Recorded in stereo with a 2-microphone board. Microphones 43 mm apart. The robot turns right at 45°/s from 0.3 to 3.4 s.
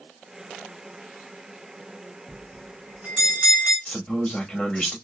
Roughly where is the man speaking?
Left.